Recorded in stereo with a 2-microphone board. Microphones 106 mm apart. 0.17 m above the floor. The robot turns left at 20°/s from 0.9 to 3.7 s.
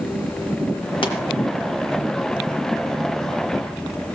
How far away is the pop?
About 2 m.